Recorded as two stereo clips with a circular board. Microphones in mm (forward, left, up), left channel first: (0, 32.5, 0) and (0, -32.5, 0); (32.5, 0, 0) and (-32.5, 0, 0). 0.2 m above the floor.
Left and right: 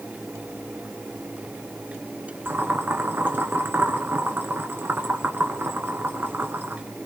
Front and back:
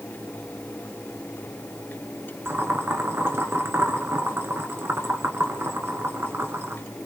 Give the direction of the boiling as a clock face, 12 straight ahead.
5 o'clock.